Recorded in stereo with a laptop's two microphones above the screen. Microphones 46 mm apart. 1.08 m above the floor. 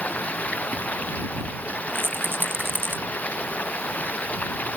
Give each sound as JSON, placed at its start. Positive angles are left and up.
{"t": 0.0, "sound": "running water", "side_deg": 30}
{"t": 1.9, "sound": "a rattle", "side_deg": -55}